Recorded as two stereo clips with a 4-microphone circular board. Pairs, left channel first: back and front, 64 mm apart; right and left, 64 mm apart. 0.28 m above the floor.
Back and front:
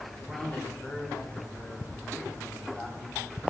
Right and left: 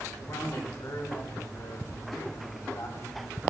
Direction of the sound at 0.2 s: 105° right.